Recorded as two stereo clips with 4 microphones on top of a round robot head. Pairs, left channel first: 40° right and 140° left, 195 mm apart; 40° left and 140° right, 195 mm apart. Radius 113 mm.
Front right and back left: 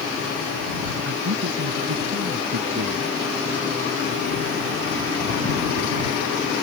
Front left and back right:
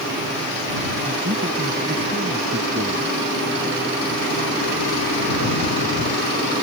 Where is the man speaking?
170° left.